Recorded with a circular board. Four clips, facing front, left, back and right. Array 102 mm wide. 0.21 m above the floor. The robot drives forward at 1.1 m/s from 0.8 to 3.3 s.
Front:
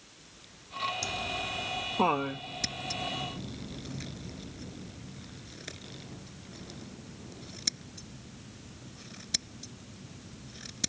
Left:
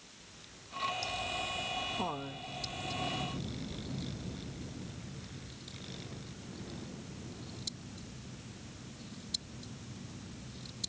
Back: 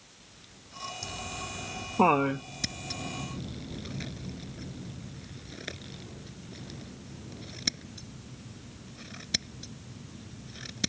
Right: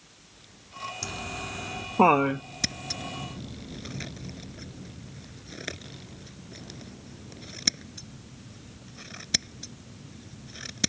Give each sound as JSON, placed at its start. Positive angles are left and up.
{"t": 1.0, "sound": "laughter", "azimuth_deg": -65}
{"t": 2.6, "sound": "scissors", "azimuth_deg": -90}